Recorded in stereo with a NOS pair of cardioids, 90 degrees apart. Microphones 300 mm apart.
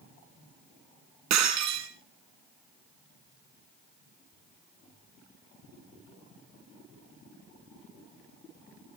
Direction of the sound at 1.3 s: 65° right.